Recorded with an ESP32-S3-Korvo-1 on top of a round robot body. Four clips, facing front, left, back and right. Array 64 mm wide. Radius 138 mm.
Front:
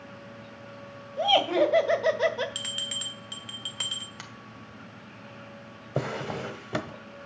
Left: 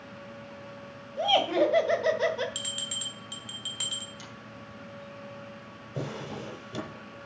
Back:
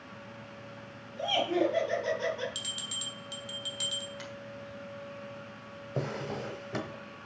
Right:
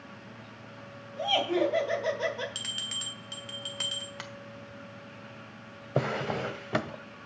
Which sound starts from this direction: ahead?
A bell, at 2.5 s.